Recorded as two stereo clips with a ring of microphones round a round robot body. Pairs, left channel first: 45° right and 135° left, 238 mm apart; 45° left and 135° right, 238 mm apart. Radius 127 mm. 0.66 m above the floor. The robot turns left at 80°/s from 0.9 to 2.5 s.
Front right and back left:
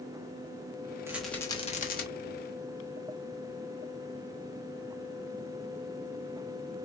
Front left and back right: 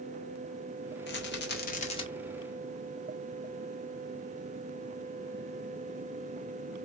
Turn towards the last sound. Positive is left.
turn(degrees=-55)